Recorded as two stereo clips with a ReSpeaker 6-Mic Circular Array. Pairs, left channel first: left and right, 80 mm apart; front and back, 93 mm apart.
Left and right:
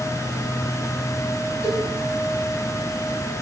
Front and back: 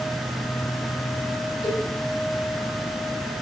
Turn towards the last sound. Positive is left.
turn(degrees=40)